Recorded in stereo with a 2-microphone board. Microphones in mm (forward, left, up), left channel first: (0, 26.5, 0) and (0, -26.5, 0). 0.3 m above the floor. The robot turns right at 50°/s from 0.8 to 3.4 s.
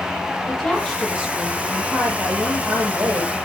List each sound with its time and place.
0.5 s a woman speaking: 160° left, 8 m; by 3.4 s 70° right, 8 m